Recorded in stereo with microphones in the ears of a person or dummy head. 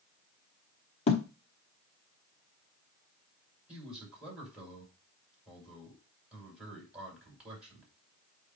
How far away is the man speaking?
About 5 m.